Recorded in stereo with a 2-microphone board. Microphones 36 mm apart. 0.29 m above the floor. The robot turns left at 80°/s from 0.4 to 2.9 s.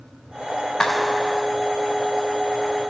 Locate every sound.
0.8 s a clap: 20° left, 2 m; by 1.5 s 35° right, 2 m